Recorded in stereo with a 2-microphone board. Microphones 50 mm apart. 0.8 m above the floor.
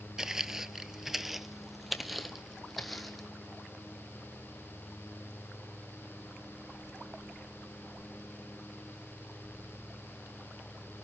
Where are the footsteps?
10° right (ahead or behind), 0.8 m; by 3.3 s centre (ahead or behind), 1.9 m.